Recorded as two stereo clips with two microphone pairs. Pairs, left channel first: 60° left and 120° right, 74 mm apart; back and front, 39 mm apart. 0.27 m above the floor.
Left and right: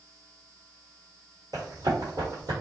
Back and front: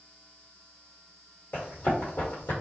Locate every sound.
1.5 s running footsteps: 155° right, 1.1 m